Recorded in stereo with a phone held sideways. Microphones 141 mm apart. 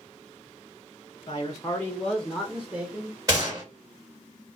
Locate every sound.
1.3 s a man speaking: 35° left (ahead or behind), 0.6 m; by 3.2 s 15° right (ahead or behind), 1.0 m
3.3 s a gunshot: 25° right (ahead or behind), 1.5 m